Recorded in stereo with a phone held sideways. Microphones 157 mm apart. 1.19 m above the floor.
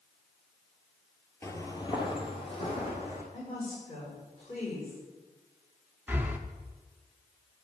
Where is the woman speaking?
55° left (ahead or behind), 5 m.